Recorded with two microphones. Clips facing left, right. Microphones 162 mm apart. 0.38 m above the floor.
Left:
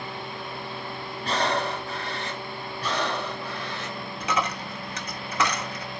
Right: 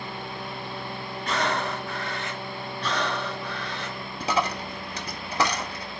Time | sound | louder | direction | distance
1.2 | breathing | left 1 dB | 35° left (ahead or behind) | 0.6 m
2.8 | breathing | even | 10° left (ahead or behind) | 1.0 m
4.2 | a dropped coin | right 2 dB | 35° right (ahead or behind) | 0.7 m